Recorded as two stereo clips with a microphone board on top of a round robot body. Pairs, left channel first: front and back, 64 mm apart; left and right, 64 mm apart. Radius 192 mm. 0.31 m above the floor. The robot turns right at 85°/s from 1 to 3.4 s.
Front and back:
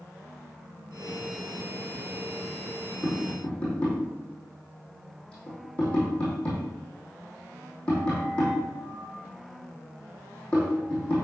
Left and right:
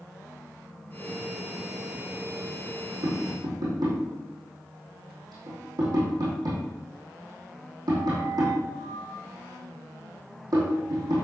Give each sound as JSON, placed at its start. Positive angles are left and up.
{"t": 3.0, "sound": "tapping", "azimuth_deg": -105, "distance_m": 5.0}